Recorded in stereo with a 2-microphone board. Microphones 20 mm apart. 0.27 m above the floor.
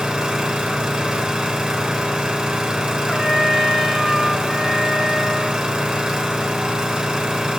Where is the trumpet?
20° left (ahead or behind), 1.1 m.